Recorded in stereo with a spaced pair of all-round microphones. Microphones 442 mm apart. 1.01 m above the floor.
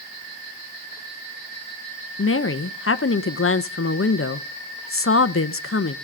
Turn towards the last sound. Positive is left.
turn(degrees=30)  # may be behind; listen again after turning